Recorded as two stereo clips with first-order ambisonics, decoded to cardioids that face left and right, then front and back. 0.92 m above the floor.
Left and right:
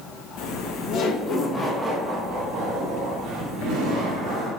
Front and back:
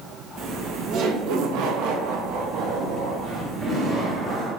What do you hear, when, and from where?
0.4 s laughter: 120° left, 0.9 m; by 4.5 s 125° right, 1.6 m